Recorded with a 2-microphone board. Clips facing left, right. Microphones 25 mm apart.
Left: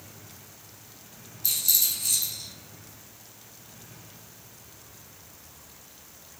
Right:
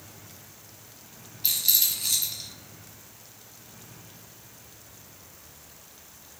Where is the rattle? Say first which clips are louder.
Right 1 dB; 45° right (ahead or behind), 0.8 m.